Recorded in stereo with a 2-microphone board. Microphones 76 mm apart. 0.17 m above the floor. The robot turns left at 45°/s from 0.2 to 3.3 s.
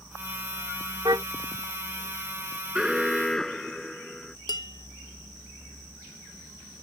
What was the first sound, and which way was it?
A car horn, 60° right (ahead or behind).